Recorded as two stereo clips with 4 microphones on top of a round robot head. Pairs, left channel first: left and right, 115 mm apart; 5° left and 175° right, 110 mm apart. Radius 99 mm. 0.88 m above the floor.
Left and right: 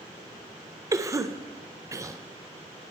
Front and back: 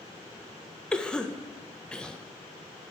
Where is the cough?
65° right, 0.6 m.